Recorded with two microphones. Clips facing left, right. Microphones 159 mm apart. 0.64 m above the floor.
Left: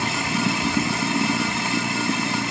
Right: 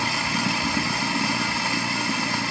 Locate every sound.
0.0 s running water: 20° left (ahead or behind)